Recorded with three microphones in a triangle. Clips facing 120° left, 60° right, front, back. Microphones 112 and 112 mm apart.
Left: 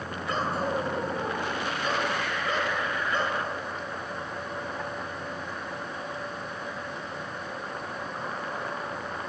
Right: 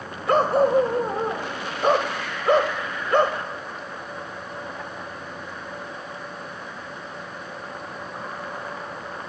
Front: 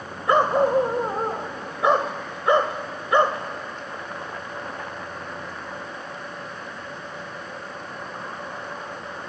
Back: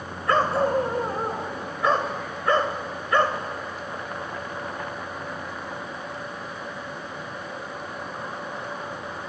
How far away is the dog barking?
About 1.6 m.